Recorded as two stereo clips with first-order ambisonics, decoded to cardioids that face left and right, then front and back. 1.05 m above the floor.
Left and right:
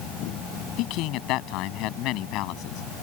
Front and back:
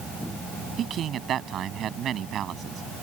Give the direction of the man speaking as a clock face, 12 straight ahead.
8 o'clock.